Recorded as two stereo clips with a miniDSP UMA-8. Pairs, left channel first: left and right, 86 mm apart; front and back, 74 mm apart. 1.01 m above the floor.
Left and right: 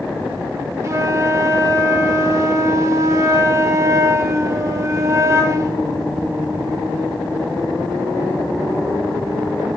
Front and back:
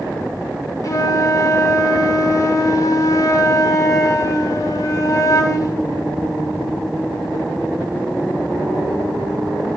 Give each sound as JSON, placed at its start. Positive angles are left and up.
{"t": 0.8, "sound": "a flute", "azimuth_deg": -35, "distance_m": 1.0}